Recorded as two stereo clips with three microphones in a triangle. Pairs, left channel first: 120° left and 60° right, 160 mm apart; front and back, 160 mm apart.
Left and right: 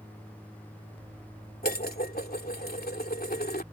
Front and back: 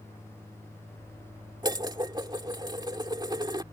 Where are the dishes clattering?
120° left.